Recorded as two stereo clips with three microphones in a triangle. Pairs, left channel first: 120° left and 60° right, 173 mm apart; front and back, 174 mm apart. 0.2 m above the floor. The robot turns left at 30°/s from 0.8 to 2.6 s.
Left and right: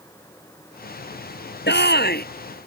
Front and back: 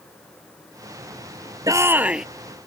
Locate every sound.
1.7 s a shout: 110° left; by 2.2 s 95° left